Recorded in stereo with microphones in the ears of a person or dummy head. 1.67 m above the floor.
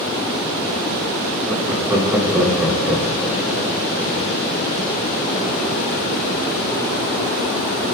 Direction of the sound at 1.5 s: 10° right (ahead or behind).